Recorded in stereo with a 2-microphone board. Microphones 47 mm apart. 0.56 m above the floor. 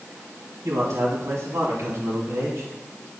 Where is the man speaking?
75° right (ahead or behind), 5 m.